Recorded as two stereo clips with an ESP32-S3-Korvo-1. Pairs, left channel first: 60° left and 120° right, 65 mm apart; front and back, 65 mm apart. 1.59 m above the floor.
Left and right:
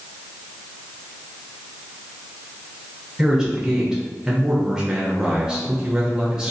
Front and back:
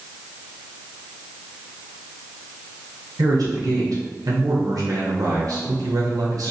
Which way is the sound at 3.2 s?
160° left.